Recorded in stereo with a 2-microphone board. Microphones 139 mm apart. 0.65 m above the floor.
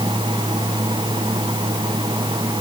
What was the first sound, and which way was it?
Only background noise.